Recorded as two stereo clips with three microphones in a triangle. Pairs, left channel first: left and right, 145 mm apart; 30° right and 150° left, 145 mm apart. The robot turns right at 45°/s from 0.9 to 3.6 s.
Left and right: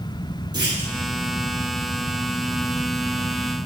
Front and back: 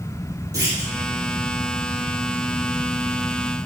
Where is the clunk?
145° right, 4 m.